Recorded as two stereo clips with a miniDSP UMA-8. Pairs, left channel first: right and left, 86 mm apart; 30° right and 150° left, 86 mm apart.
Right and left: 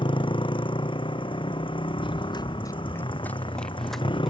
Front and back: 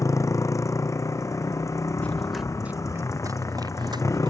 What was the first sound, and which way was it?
A motorcycle, 85° right.